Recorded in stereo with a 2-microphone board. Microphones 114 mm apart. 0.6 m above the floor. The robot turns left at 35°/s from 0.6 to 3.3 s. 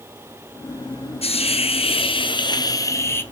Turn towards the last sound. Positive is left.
turn(degrees=20)